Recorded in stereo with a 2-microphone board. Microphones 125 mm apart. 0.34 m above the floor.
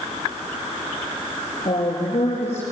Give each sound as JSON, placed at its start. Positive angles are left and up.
{"t": 1.6, "sound": "a woman speaking", "side_deg": 60, "distance_m": 6.0}